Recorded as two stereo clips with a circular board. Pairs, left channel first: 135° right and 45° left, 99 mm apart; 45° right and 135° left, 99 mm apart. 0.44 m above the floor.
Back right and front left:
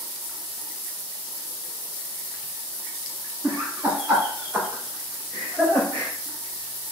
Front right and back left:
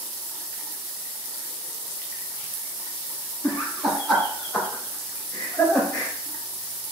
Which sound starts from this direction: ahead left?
Laughter, at 3.4 s.